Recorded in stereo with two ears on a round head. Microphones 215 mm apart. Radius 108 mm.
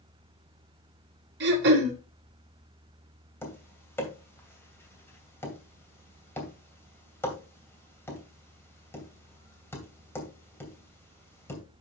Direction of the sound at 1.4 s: 45° right (ahead or behind).